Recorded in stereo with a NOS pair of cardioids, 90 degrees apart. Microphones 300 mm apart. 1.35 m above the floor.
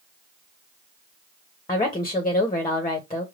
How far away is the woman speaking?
About 1.3 m.